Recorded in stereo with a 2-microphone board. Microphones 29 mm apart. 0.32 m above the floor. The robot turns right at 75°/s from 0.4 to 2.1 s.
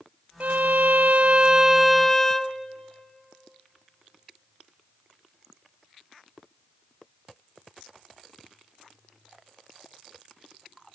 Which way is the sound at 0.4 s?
115° right.